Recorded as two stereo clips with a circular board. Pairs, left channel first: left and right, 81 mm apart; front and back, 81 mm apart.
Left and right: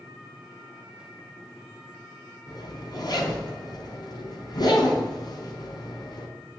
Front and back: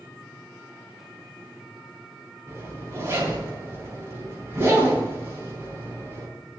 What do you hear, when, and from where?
2.5 s a zipper: 125° left, 4 m